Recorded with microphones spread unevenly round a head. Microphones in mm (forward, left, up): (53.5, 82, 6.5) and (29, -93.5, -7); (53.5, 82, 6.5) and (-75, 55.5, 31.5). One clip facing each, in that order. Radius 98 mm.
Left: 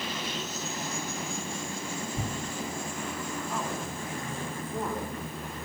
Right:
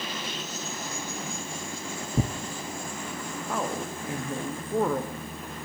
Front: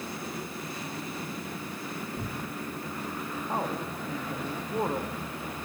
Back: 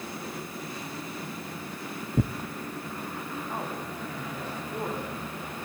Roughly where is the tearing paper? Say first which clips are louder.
Right 10 dB, back 9 dB; behind right.